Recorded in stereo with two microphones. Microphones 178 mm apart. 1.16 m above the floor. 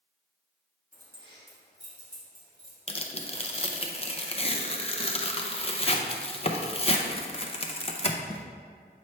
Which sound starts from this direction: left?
Tearing paper, at 2.9 s.